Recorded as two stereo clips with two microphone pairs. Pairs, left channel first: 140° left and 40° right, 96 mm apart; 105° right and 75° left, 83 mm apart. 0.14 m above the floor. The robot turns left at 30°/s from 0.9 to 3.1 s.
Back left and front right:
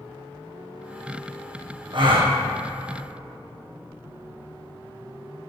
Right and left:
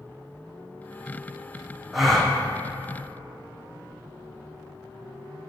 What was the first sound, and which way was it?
A gasp, 10° right.